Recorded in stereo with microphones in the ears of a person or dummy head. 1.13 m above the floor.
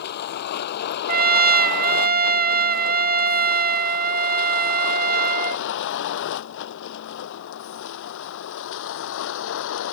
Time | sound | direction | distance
0.0 | a vehicle | 55° left (ahead or behind) | ?
1.1 | a trumpet | 45° right (ahead or behind) | ?